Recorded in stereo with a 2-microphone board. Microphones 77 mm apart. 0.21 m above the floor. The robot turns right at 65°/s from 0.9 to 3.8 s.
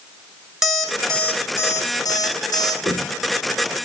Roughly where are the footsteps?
Right.